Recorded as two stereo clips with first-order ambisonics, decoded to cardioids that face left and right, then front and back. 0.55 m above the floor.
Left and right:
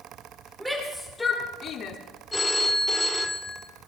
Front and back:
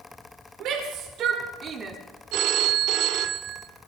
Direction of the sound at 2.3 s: 170° left.